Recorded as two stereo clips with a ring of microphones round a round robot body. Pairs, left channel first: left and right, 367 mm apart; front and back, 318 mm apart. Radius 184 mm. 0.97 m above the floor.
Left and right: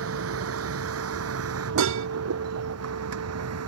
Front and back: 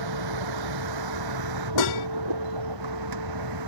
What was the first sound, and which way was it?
A vehicle, 145° right.